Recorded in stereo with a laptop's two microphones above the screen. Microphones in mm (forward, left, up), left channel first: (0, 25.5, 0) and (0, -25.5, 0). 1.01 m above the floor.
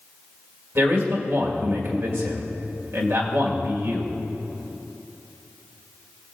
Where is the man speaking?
65° right (ahead or behind), 2 m.